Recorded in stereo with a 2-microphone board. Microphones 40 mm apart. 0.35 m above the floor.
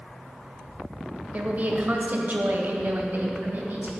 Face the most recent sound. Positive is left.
turn(degrees=-55)  # may be behind; listen again after turning